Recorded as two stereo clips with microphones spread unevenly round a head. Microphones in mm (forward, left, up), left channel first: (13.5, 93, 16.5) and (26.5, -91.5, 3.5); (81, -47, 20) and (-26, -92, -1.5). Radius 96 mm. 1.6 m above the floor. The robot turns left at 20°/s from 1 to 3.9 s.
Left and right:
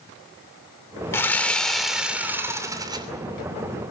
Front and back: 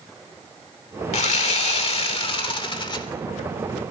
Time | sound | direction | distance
1.1 | sawing | 20° left | 2.5 m